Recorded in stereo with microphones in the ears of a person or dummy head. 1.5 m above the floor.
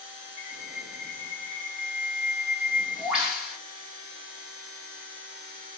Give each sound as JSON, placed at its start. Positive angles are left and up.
{"t": 0.4, "sound": "a bird", "side_deg": -5, "distance_m": 1.7}